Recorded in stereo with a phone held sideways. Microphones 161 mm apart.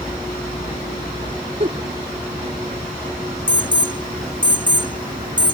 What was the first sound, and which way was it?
A giggle, 45° right (ahead or behind).